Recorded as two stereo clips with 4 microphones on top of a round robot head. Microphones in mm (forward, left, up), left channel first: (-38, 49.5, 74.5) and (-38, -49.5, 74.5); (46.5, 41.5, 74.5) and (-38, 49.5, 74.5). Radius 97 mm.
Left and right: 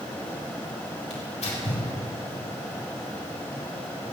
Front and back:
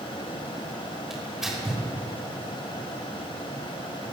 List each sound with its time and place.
1.1 s tearing paper: 90° left, 4 m